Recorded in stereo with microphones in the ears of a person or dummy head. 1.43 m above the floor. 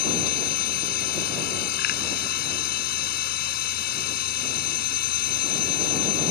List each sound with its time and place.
0.0 s a machine running: 60° left (ahead or behind)